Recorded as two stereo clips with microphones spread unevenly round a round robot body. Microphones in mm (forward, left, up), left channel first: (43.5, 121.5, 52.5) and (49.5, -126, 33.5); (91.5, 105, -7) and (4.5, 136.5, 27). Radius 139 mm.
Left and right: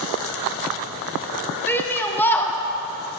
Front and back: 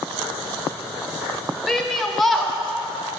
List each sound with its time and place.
1.7 s a shout: 10° left, 0.8 m